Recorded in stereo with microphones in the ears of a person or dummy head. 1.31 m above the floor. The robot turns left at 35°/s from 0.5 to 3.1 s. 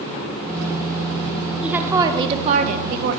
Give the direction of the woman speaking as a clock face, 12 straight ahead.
12 o'clock.